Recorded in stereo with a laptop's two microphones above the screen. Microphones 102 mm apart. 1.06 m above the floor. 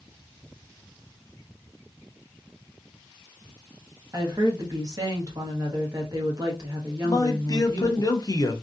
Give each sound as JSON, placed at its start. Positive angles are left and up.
{"t": 4.1, "sound": "a woman speaking", "side_deg": -40, "distance_m": 1.3}
{"t": 7.0, "sound": "a man speaking", "side_deg": 40, "distance_m": 0.7}